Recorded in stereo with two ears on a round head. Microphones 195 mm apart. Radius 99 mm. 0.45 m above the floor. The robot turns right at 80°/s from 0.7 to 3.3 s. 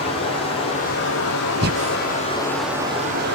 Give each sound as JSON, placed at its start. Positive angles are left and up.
{"t": 0.0, "sound": "running water", "azimuth_deg": 25, "distance_m": 7.0}
{"t": 1.6, "sound": "breathing", "side_deg": -50, "distance_m": 0.7}